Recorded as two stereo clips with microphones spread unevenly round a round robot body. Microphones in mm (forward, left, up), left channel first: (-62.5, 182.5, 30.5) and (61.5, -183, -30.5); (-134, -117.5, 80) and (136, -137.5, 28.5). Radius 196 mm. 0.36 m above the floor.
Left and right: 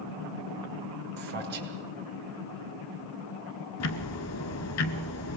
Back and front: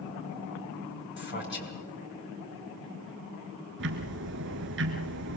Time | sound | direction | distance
1.2 | a man speaking | 135° right | 5.5 m
3.8 | ticking | 55° left | 1.2 m